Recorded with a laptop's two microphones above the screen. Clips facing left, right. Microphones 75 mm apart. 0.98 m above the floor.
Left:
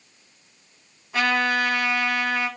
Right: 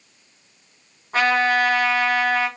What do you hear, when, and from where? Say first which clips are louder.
1.1 s a trumpet: right 4 dB; 40° right (ahead or behind), 1.0 m